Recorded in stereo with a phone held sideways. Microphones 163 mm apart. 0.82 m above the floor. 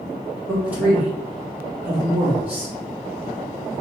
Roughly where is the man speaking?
Centre.